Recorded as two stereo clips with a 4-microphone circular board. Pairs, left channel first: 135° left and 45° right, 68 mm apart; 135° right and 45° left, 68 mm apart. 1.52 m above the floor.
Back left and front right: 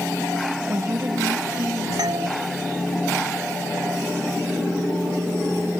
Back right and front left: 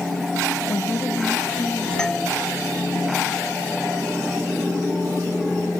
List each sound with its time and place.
0.7 s a woman speaking: 95° right; by 2.6 s 60° right
2.0 s a doorbell: 55° right